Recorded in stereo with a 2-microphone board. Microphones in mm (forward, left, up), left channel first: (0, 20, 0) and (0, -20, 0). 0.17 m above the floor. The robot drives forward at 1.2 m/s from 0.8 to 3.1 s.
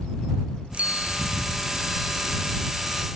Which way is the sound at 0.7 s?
35° right (ahead or behind).